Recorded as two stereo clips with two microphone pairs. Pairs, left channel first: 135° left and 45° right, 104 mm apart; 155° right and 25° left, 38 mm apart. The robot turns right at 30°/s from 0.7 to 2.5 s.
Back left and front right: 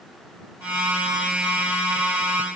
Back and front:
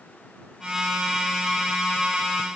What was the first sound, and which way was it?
Only background noise.